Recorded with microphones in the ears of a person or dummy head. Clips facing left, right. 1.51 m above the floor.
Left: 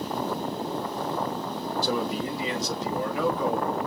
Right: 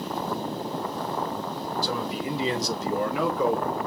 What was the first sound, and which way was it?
A man speaking, 20° left (ahead or behind).